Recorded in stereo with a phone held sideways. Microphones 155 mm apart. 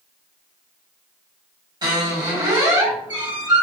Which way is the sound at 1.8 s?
25° right (ahead or behind).